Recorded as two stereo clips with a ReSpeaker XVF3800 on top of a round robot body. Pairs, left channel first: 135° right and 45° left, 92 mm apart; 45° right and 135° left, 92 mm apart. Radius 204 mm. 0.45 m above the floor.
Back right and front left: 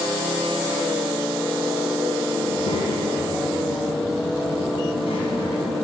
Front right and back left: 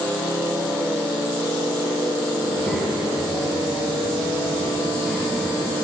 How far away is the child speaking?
About 5 m.